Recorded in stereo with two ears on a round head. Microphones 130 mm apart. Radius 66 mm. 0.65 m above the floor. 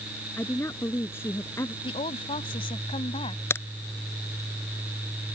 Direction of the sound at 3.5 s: 20° left (ahead or behind).